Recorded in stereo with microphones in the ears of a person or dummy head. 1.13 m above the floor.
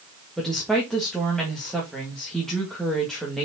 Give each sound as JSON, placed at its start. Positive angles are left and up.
{"t": 0.4, "sound": "a woman speaking", "side_deg": 0, "distance_m": 1.8}